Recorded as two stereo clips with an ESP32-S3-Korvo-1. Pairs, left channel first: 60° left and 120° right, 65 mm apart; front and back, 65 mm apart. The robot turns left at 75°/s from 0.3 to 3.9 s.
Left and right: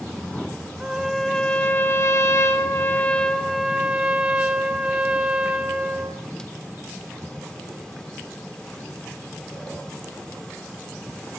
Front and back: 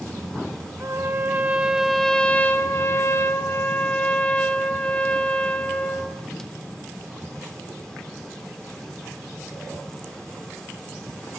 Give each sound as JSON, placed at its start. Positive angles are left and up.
{"t": 0.8, "sound": "a trumpet", "azimuth_deg": 175, "distance_m": 1.3}